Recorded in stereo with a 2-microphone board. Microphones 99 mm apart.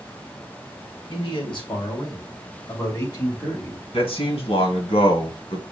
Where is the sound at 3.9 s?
70° left (ahead or behind), 2.5 m.